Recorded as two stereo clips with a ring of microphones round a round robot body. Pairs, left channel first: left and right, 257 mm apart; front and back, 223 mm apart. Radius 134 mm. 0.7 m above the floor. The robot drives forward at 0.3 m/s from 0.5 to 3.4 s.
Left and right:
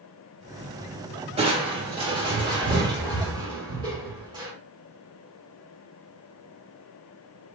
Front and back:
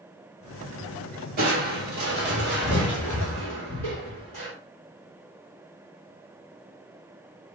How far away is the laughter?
I don't hear laughter.